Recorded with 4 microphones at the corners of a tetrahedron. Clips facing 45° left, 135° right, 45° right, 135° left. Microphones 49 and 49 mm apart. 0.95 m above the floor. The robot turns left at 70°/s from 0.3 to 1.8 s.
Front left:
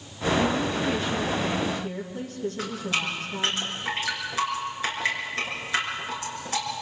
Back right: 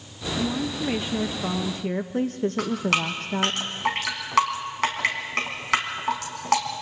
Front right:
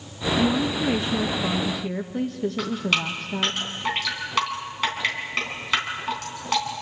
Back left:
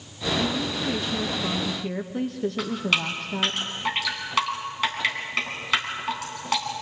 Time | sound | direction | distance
0.4 | a woman speaking | 35° right | 0.8 m
2.6 | dripping | 135° right | 4 m